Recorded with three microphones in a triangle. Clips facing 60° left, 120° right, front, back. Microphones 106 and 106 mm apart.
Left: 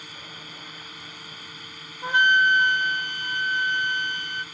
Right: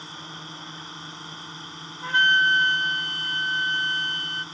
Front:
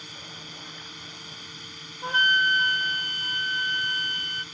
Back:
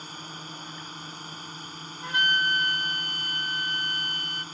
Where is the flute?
5° left.